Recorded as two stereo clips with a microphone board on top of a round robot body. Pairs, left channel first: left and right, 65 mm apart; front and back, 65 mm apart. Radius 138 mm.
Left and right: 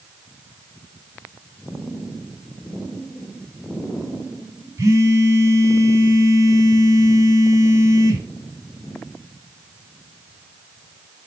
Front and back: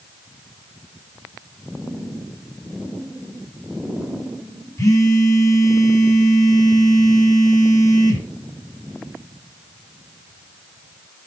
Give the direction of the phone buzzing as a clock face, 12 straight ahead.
1 o'clock.